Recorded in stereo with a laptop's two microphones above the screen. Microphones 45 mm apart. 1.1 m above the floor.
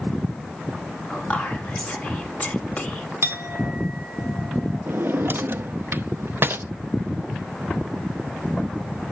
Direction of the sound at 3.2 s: 55° right (ahead or behind).